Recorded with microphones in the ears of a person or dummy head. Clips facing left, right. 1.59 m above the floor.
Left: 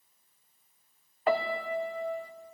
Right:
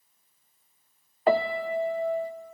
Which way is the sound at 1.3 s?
30° right (ahead or behind).